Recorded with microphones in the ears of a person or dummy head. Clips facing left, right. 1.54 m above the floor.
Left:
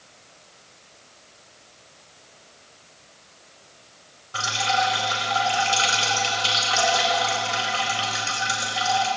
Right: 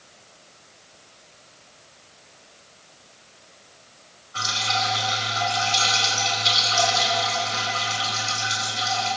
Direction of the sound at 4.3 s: 75° left (ahead or behind).